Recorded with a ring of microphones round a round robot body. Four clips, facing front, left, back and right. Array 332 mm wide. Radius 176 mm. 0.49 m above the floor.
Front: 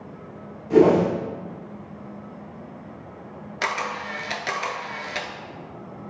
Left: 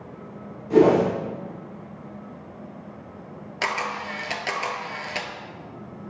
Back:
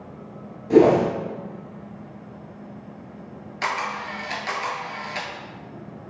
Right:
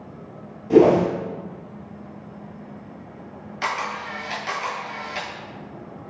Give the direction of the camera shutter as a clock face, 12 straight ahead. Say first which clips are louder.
Right 1 dB, back 1 dB; 10 o'clock.